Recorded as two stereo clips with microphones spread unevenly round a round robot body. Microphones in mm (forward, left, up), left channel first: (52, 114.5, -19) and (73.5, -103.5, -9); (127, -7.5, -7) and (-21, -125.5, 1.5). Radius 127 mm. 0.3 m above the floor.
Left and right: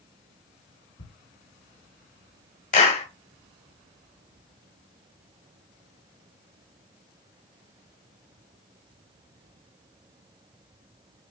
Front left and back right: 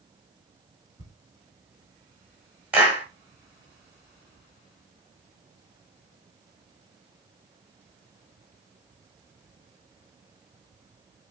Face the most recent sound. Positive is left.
turn(degrees=135)